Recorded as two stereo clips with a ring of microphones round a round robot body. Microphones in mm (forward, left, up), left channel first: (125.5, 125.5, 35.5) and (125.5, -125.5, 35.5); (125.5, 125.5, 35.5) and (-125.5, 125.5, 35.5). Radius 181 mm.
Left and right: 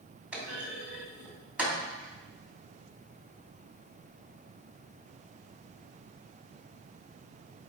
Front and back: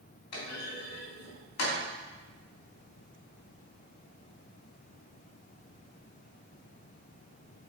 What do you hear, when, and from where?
0.3 s a clunk: 5° right, 3 m